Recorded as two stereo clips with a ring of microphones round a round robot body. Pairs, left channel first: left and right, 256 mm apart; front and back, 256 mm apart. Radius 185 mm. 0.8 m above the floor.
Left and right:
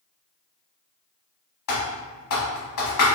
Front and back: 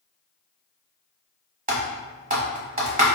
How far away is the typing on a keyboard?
About 1.0 m.